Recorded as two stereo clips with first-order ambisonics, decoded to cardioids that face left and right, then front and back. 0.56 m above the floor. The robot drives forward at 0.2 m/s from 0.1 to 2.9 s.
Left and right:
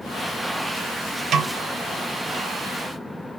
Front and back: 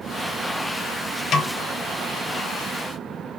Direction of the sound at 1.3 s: 40° right.